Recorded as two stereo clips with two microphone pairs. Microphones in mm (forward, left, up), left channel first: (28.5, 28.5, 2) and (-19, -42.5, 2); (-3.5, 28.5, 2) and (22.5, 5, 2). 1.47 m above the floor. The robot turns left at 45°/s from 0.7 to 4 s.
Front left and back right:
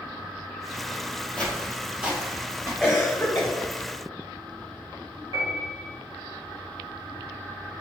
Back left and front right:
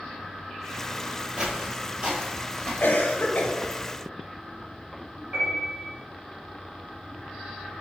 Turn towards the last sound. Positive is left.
turn(degrees=-85)